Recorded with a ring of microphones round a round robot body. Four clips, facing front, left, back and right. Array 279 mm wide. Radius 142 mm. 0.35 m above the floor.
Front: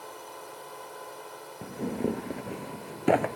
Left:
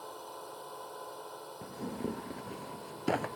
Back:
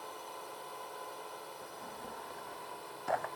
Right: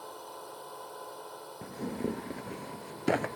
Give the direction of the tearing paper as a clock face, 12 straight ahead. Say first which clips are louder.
Right 3 dB, front 14 dB; 12 o'clock.